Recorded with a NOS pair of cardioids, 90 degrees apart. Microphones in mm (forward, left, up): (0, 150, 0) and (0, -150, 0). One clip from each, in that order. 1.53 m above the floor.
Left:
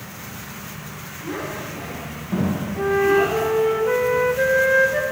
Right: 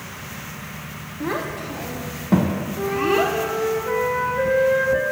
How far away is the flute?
About 0.5 m.